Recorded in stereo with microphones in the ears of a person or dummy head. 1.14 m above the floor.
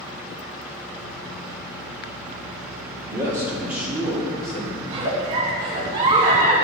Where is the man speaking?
10° right (ahead or behind), 2.5 m; by 4.8 s 15° left (ahead or behind), 1.8 m.